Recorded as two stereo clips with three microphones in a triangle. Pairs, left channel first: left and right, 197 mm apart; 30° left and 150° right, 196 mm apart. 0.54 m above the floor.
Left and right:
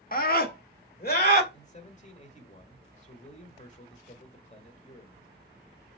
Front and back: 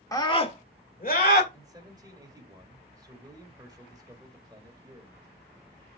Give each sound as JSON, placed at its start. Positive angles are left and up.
{"t": 0.1, "sound": "a scream", "azimuth_deg": 95, "distance_m": 1.2}
{"t": 1.5, "sound": "a man speaking", "azimuth_deg": 140, "distance_m": 1.6}